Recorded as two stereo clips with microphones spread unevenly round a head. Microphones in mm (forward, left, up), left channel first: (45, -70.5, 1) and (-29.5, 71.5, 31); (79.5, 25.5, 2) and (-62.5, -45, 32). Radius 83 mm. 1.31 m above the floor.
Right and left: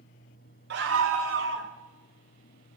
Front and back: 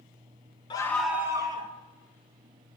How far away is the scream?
About 1.1 m.